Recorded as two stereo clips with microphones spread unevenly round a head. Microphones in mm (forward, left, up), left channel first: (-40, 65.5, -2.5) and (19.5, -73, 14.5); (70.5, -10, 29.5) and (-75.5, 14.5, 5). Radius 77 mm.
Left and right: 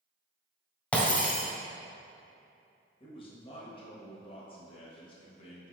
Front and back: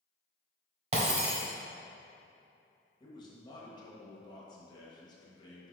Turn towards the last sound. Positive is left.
turn(degrees=55)